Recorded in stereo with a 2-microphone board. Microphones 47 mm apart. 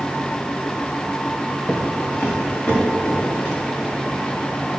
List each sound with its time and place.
1.7 s footsteps: 25° left (ahead or behind), 1.5 m; by 3.6 s 20° left (ahead or behind), 3.5 m